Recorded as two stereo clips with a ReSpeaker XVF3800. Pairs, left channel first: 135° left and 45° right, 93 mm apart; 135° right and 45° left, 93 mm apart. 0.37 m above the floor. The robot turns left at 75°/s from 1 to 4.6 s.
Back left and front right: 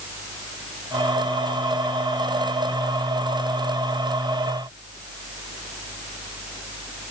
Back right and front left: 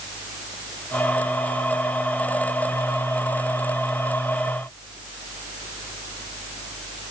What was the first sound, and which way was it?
Only background noise.